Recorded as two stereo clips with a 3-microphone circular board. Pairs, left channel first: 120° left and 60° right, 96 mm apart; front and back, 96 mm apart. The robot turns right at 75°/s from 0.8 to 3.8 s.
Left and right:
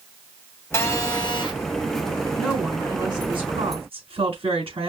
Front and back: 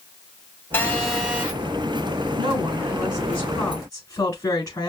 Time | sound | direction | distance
0.7 | a phone buzzing | 65° left | 2.5 m
2.4 | a woman speaking | 155° right | 4 m